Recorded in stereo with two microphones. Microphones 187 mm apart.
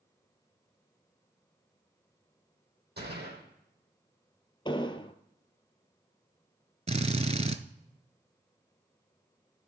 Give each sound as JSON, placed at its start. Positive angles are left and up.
{"t": 3.0, "sound": "a gunshot", "side_deg": -60, "distance_m": 3.5}
{"t": 4.7, "sound": "an explosion", "side_deg": 25, "distance_m": 0.7}
{"t": 6.9, "sound": "a drill", "side_deg": -35, "distance_m": 0.7}